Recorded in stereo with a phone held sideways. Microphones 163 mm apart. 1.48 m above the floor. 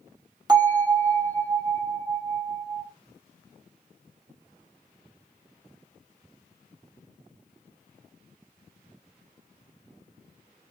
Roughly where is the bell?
Right.